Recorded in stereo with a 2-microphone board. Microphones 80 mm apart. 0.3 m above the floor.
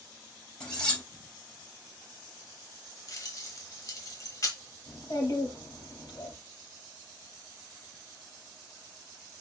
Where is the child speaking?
45° left (ahead or behind), 4 m.